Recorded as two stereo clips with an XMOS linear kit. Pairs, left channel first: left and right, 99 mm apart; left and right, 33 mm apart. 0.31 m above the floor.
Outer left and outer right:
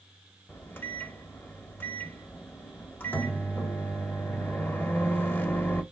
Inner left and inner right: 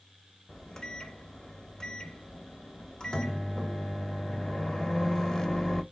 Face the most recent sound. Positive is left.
turn(degrees=20)  # may be behind; listen again after turning